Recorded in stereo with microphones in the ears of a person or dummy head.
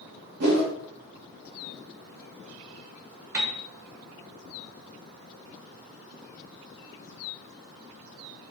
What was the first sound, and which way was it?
A whoosh, 55° right (ahead or behind).